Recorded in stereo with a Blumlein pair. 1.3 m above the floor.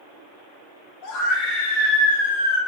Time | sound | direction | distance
1.0 | a scream | 35° left | 2.5 m